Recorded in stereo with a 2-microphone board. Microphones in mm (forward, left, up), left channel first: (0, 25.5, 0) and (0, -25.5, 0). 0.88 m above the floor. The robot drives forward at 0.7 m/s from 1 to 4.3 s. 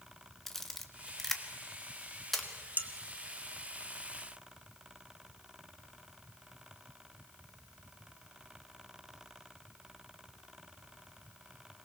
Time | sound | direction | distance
0.5 | a camera shutter | 5° left (ahead or behind) | 1.3 m
2.8 | dishes clattering | 30° right (ahead or behind) | 1.4 m